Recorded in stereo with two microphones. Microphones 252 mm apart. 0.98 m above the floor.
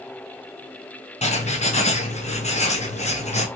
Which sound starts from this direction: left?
Writing, at 1.2 s.